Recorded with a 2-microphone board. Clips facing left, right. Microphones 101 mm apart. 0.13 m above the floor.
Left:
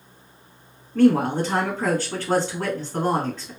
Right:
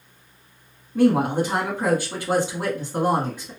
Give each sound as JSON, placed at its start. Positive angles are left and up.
{"t": 0.9, "sound": "a woman speaking", "side_deg": -15, "distance_m": 1.3}